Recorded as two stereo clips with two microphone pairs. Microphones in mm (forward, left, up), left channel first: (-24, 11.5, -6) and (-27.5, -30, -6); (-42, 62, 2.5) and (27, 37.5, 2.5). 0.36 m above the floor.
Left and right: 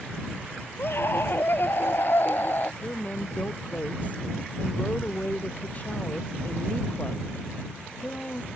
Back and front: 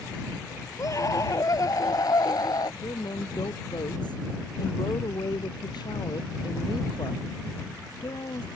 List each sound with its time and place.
0.8 s a scream: 120° left; by 2.7 s 130° left
2.8 s a woman speaking: 140° left